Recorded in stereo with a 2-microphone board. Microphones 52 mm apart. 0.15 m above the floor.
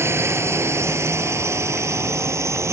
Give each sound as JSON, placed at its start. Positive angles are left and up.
{"t": 0.0, "sound": "a drone", "side_deg": -55}